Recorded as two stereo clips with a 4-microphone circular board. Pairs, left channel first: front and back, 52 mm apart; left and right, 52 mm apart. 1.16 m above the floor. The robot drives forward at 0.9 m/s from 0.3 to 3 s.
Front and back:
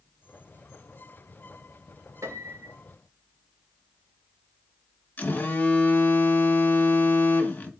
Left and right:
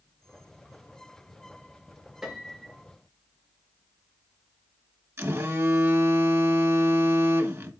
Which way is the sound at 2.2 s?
170° right.